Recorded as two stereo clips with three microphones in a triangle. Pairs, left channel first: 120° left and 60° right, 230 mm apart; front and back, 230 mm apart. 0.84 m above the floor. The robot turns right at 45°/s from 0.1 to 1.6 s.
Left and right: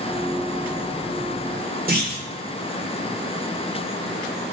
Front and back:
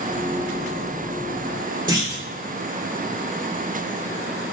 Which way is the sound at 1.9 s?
110° right.